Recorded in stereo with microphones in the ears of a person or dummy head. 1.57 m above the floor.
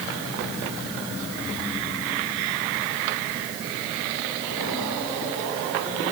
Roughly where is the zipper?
No zipper in this recording.